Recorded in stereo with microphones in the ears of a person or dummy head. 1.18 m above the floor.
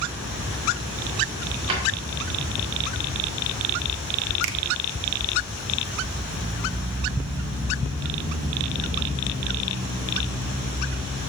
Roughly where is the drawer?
Right.